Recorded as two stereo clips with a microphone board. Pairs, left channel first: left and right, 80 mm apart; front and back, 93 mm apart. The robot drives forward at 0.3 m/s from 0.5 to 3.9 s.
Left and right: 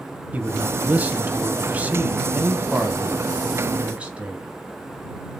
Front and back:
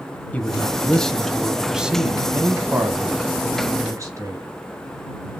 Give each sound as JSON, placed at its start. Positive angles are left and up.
{"t": 0.3, "sound": "a man speaking", "azimuth_deg": -50, "distance_m": 1.0}